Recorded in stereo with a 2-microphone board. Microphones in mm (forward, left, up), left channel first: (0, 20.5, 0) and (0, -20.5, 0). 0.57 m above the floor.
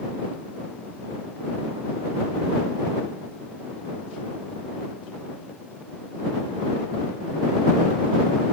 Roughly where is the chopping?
No chopping in this recording.